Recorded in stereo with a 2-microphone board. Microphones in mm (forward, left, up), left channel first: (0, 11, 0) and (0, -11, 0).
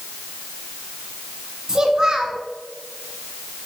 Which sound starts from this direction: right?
A child speaking, at 1.7 s.